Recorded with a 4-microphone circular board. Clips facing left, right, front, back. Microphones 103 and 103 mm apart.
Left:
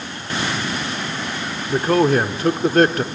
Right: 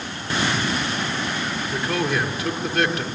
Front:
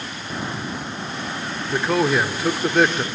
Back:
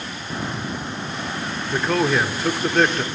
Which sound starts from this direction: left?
A man speaking, at 1.7 s.